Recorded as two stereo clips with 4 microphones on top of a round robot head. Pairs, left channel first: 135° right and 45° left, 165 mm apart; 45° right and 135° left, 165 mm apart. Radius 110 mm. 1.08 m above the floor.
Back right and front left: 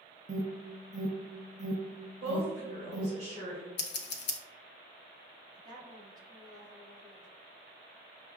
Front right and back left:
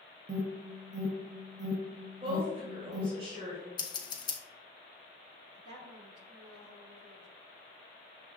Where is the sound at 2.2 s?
80° left, 2.0 m.